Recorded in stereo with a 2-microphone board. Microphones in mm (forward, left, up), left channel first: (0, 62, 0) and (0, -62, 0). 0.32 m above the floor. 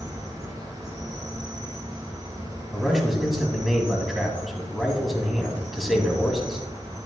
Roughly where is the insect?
Right.